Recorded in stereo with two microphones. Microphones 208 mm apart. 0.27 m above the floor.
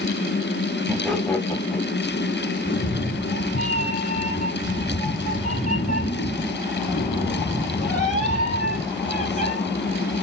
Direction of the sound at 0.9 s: 5° right (ahead or behind).